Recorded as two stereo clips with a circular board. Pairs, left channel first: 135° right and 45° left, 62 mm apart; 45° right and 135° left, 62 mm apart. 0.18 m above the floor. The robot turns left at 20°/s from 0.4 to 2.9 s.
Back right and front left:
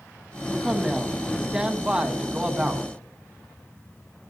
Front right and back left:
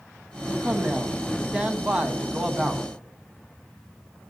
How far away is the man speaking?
About 1.1 m.